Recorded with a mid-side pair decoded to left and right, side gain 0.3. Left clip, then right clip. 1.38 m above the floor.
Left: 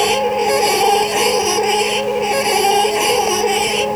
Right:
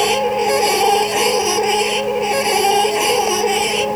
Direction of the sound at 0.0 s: 10° left.